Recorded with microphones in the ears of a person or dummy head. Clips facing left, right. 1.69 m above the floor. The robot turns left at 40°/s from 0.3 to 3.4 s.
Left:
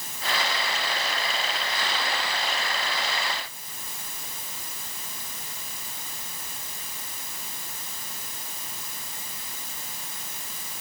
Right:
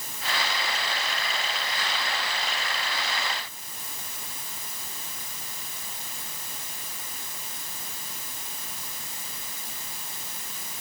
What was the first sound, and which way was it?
Only background noise.